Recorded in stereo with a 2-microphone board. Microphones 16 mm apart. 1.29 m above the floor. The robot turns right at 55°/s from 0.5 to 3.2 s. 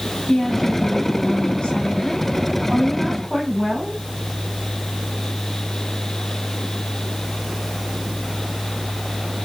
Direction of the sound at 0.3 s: 35° left.